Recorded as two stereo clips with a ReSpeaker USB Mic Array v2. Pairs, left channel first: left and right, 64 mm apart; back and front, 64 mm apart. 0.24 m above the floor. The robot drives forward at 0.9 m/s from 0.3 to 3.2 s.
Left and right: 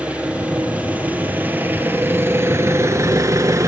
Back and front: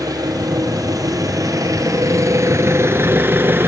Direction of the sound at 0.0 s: 20° right.